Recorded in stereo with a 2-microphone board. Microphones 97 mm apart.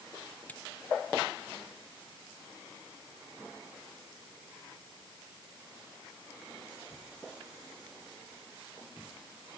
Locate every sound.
0.5 s cutlery clinking: 15° left (ahead or behind)